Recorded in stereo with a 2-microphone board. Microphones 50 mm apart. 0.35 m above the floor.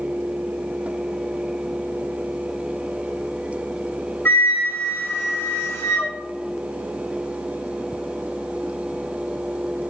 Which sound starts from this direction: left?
A flute, at 4.2 s.